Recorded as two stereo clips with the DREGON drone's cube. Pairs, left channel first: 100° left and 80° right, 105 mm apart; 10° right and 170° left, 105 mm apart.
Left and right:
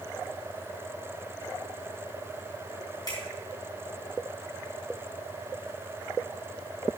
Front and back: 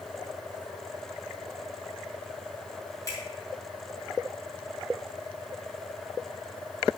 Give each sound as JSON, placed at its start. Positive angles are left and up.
{"t": 3.1, "sound": "a finger snap", "azimuth_deg": 45, "distance_m": 5.5}